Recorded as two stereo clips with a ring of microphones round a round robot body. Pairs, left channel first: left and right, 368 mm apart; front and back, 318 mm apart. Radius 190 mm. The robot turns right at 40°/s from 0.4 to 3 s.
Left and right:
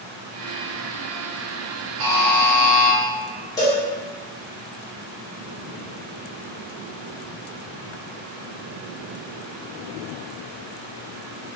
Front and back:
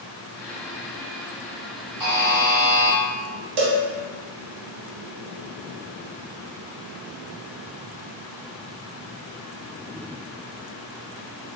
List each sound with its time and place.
2.0 s a buzzer: 105° right, 0.9 m; by 3.0 s 65° right, 0.9 m
3.6 s a cowbell: 170° left, 0.5 m